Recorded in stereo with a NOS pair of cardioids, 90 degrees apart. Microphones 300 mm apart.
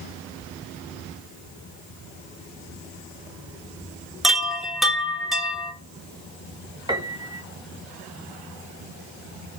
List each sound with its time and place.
4.2 s a chime: straight ahead, 2.0 m
6.9 s a piano: 15° right, 1.8 m